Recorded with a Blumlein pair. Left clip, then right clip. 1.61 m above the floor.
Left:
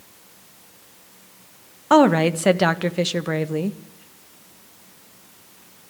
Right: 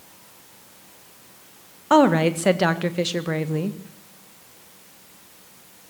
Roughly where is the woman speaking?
Ahead.